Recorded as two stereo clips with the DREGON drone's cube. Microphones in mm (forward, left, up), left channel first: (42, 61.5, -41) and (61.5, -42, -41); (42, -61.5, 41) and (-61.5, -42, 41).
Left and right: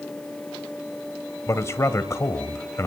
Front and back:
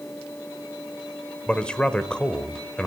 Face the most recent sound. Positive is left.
turn(degrees=65)